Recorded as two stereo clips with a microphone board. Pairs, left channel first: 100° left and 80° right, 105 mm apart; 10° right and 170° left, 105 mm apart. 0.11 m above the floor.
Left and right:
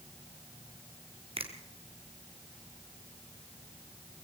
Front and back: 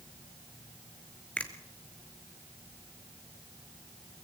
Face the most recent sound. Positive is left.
turn(degrees=-90)